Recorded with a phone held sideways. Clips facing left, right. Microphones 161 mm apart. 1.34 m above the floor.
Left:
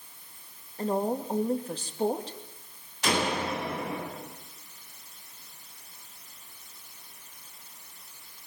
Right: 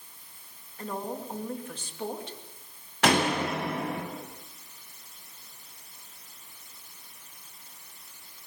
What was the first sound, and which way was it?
A woman speaking, 35° left (ahead or behind).